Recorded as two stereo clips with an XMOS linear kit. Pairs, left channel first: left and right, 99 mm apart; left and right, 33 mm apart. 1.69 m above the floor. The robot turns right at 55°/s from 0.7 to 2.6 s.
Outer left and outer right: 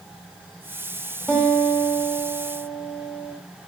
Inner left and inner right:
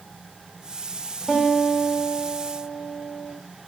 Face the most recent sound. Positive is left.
turn(degrees=25)  # may be behind; listen again after turning